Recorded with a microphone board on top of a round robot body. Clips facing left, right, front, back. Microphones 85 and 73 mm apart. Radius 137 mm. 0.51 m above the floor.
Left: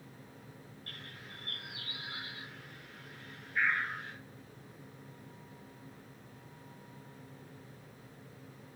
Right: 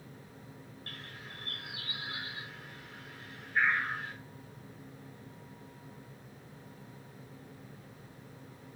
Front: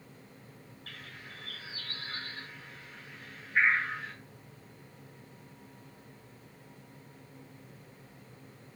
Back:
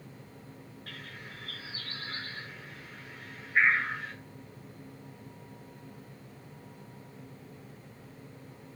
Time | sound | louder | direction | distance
0.9 | a bird | right 2 dB, back 2 dB | 95° right | 6 m